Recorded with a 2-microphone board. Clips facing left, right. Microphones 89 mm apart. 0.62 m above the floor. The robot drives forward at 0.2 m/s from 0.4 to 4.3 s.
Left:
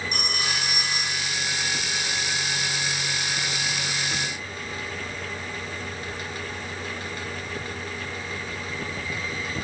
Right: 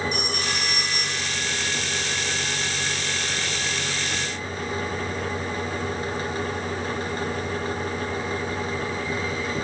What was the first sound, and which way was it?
A phone ringing, 60° left (ahead or behind).